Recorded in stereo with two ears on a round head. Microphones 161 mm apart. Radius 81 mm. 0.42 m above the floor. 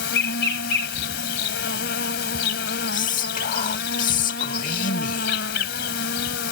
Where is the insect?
65° left (ahead or behind).